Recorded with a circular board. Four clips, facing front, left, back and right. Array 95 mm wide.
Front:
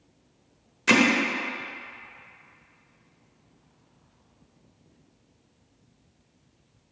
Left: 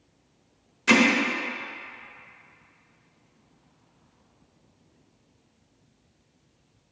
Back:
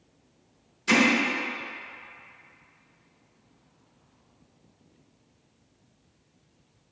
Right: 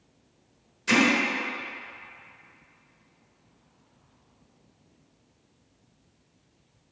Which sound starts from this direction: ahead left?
Hammering, at 0.9 s.